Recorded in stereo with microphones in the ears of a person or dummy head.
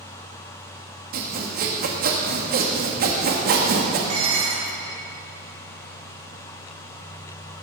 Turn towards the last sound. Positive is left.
turn(degrees=-80)